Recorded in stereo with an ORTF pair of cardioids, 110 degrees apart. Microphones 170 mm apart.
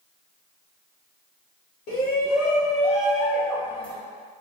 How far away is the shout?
About 1.5 m.